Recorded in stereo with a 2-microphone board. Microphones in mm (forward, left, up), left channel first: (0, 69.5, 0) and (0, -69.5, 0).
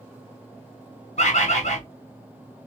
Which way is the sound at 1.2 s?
50° left (ahead or behind).